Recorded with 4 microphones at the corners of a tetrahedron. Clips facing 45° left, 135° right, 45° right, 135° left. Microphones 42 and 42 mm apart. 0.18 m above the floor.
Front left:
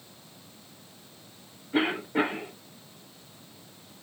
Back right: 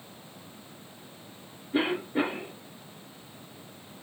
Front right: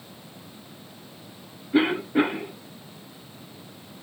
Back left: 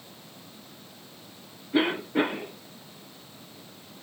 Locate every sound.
1.7 s a cough: 40° left, 1.2 m